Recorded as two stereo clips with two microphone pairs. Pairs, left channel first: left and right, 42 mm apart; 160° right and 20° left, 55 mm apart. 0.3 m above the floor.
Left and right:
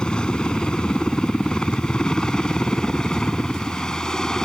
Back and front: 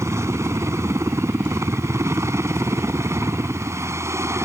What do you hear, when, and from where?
0.0 s a helicopter: 25° left; by 4.5 s 15° left